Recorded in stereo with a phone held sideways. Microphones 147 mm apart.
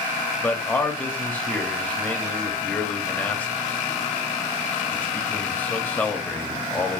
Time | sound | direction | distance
0.4 | a man speaking | 10° left (ahead or behind) | 0.8 m